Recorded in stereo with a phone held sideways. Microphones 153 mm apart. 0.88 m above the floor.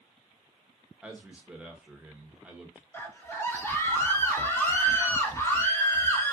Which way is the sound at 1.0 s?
10° right (ahead or behind).